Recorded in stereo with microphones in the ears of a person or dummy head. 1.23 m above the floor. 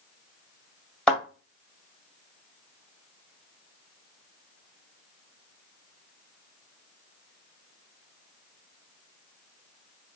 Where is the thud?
5° left (ahead or behind), 1.8 m.